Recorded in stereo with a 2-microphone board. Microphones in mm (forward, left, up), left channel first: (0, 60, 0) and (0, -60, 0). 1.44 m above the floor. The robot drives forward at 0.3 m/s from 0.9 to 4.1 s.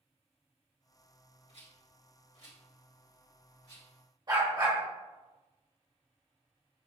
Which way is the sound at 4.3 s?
35° right (ahead or behind).